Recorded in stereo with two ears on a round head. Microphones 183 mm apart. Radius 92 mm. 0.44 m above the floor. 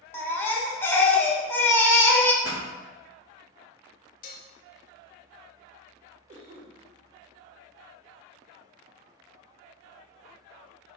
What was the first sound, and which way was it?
A baby crying, 10° left (ahead or behind).